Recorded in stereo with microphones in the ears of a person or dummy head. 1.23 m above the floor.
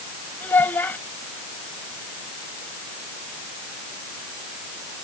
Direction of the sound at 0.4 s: 10° left (ahead or behind).